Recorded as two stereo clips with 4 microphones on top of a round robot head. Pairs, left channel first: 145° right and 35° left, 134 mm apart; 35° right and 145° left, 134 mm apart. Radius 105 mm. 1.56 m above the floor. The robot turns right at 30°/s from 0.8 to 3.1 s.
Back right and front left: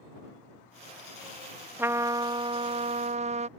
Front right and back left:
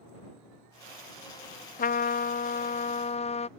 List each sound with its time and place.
1.8 s a trumpet: 35° right; by 3.5 s straight ahead